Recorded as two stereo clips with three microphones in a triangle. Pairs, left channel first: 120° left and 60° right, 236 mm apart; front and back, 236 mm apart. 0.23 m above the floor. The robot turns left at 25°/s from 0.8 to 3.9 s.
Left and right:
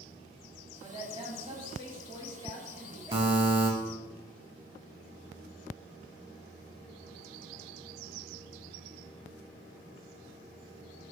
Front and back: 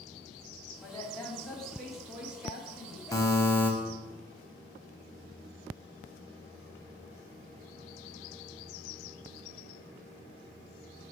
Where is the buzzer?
55° right, 0.6 m; by 3.7 s 70° right, 0.6 m.